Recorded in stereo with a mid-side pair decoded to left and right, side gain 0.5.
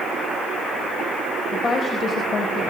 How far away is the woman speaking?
About 4 m.